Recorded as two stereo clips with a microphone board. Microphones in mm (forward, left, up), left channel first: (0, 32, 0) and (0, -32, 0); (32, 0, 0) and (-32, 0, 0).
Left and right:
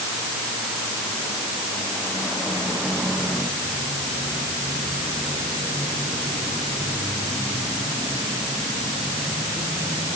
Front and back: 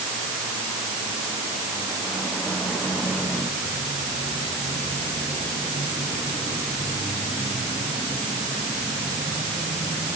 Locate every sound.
Only background noise.